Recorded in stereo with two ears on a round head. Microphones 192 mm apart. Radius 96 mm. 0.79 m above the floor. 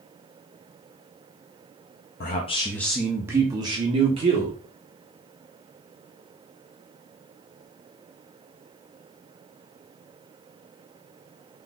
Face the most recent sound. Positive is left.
turn(degrees=-30)  # may be behind; listen again after turning